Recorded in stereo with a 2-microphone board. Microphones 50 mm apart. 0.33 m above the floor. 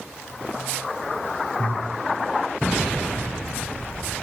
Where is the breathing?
30° left (ahead or behind), 1.5 m.